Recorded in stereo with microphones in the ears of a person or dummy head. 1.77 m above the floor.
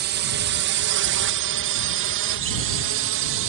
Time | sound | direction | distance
0.0 | a drone | 55° right (ahead or behind) | ?